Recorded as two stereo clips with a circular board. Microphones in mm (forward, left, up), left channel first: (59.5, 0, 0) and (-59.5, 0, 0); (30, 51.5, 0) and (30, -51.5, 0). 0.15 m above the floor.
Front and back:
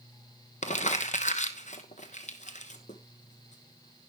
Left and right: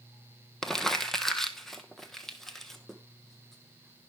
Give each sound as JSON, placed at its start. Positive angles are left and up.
{"t": 0.6, "sound": "crumpling", "azimuth_deg": 0, "distance_m": 1.2}